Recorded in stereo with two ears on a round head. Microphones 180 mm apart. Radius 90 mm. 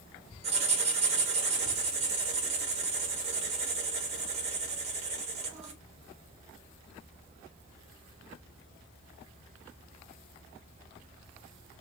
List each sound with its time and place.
0.4 s writing: 30° right (ahead or behind), 1.1 m